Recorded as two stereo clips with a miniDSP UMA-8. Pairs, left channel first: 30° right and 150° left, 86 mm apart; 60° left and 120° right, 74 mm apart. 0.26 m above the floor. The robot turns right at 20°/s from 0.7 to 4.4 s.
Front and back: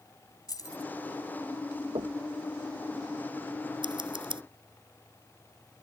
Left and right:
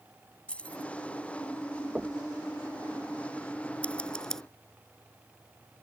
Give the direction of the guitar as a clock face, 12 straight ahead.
No guitar in this recording.